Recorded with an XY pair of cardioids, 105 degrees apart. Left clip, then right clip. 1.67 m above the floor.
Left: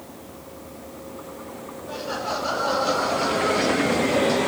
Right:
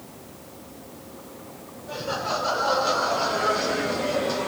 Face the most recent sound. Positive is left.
turn(degrees=5)